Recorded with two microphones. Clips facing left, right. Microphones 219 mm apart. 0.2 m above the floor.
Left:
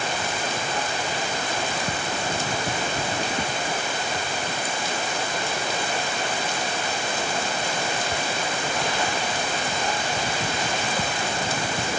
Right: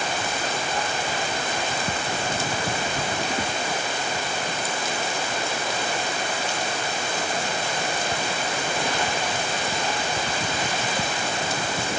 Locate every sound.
Only background noise.